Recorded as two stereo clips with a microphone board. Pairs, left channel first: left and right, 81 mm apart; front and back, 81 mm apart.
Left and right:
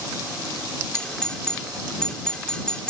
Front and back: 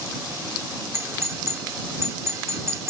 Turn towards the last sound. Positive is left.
turn(degrees=160)